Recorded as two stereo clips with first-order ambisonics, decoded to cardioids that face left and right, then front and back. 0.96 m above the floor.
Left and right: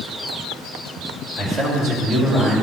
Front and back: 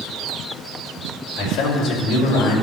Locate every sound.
1.4 s a man speaking: 25° right, 2 m